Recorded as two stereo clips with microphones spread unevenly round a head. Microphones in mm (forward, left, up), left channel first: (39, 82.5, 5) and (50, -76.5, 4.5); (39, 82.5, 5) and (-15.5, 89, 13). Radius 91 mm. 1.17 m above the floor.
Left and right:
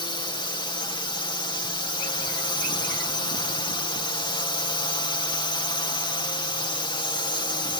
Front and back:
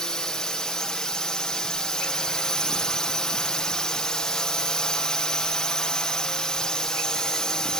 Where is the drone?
55° left.